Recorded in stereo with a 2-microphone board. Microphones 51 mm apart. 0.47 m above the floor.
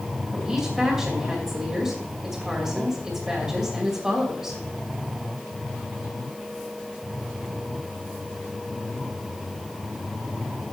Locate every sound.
0.3 s a woman speaking: 15° right (ahead or behind), 2.5 m